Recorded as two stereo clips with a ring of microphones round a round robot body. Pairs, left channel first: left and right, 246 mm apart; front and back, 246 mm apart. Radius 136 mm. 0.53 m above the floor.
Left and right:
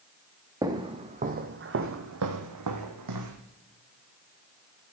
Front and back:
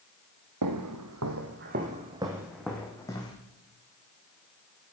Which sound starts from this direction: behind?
Footsteps, at 0.6 s.